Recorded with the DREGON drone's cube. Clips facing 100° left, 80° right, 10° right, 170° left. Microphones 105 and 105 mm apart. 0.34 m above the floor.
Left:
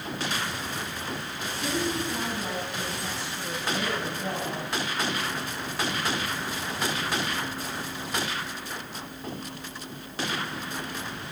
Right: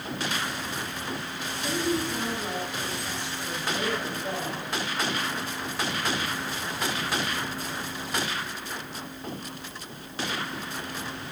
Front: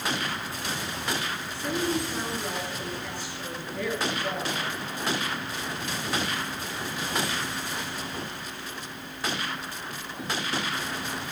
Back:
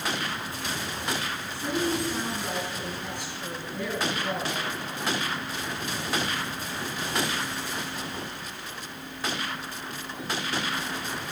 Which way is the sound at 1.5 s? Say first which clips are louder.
Right 1 dB, back 1 dB; 95° left.